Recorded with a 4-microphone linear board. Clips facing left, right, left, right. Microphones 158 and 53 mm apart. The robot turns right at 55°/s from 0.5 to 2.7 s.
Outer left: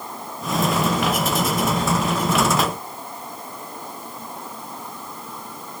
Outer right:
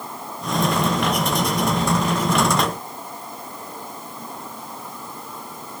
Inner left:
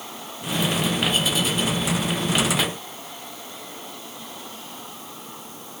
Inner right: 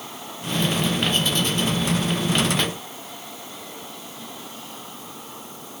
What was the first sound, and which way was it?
Only background noise.